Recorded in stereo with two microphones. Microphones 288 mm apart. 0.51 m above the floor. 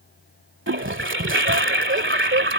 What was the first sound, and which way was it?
A toilet flushing, 45° right (ahead or behind).